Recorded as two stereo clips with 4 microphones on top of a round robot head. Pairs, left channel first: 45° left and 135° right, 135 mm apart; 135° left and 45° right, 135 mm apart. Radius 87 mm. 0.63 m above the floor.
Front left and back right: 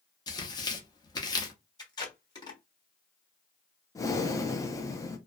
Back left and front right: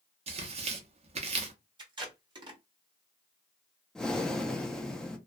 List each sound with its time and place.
0.3 s tearing paper: 10° right, 0.7 m
1.8 s tape being pulled: straight ahead, 1.2 m
4.0 s breathing: 55° left, 0.6 m